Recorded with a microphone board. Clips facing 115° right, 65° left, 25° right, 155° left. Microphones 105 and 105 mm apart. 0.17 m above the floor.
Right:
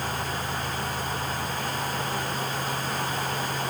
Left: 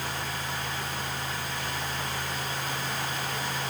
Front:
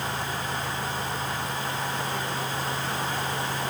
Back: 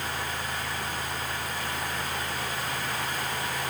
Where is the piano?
I don't hear a piano.